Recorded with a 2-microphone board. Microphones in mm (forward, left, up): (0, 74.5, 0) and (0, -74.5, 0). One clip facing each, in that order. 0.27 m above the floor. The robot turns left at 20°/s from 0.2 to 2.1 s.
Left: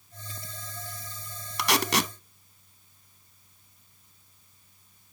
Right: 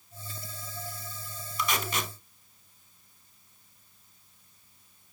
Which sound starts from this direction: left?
Tape being pulled, at 1.6 s.